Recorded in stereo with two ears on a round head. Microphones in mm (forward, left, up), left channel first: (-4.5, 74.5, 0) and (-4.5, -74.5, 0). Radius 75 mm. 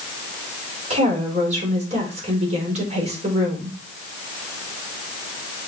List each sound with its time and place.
0.9 s a woman speaking: 45° right (ahead or behind), 4.5 m